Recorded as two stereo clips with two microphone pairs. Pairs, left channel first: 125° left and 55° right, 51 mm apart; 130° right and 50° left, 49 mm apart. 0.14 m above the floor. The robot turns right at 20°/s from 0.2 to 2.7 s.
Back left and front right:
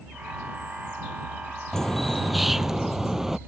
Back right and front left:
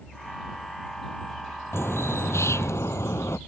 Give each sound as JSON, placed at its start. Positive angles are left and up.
{"t": 1.7, "sound": "a bird", "azimuth_deg": -155}